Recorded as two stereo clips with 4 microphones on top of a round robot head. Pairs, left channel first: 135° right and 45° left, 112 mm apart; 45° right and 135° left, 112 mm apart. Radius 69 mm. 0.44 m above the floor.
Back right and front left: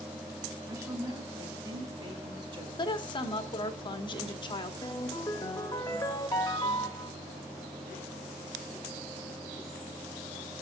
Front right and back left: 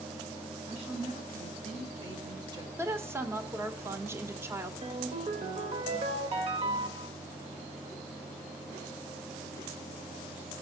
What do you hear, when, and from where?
0.7 s a woman speaking: 105° left, 5 m; by 2.7 s 80° left, 2.5 m
2.8 s a woman speaking: 160° right, 1.3 m
4.8 s a ringtone: 165° left, 1.3 m